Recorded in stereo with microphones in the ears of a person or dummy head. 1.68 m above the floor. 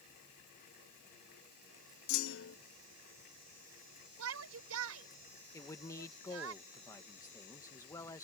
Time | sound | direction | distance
2.1 | a clunk | 75° left (ahead or behind) | ?
4.2 | a shout | 75° right (ahead or behind) | ?
5.5 | a man speaking | 20° left (ahead or behind) | ?